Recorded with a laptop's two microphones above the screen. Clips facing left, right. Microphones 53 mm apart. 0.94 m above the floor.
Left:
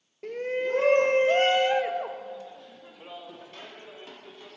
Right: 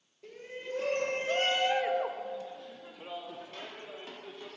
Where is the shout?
60° left (ahead or behind), 0.6 m; by 4.6 s 15° right (ahead or behind), 2 m.